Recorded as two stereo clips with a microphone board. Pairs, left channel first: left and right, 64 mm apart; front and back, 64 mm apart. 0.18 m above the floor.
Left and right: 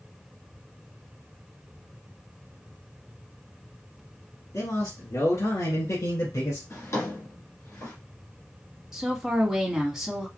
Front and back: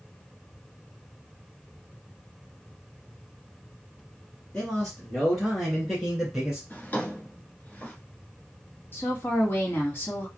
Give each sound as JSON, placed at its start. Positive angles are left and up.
{"t": 4.5, "sound": "a man speaking", "azimuth_deg": 75, "distance_m": 2.5}
{"t": 6.7, "sound": "a drawer", "azimuth_deg": 55, "distance_m": 1.8}
{"t": 8.9, "sound": "a woman speaking", "azimuth_deg": -15, "distance_m": 1.8}